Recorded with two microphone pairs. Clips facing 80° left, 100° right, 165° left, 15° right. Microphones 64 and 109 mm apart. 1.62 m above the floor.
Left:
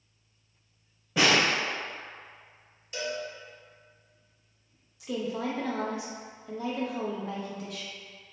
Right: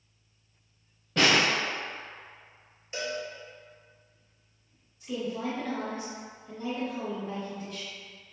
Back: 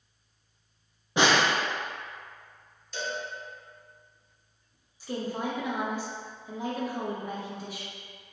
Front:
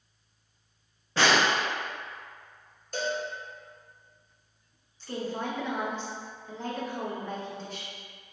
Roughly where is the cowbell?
Ahead right.